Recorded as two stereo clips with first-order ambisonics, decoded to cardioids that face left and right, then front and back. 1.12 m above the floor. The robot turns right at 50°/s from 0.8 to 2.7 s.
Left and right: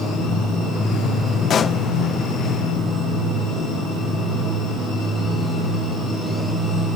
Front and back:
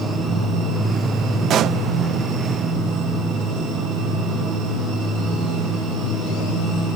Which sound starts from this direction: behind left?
A pop, at 1.5 s.